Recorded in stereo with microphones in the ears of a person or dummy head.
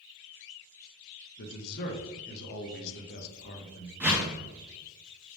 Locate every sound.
1.4 s a man speaking: 55° left (ahead or behind), 0.6 m
4.0 s a whoosh: 15° right (ahead or behind), 0.5 m